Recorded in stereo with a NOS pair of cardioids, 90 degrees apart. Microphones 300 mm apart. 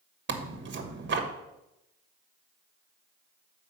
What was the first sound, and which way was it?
Tearing paper, 40° right.